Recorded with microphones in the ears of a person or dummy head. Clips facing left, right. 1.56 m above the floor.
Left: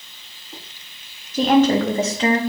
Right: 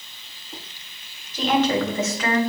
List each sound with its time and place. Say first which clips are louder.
1.3 s a woman speaking: left 5 dB; 40° left (ahead or behind), 2 m; by 2.4 s 15° left (ahead or behind), 1.3 m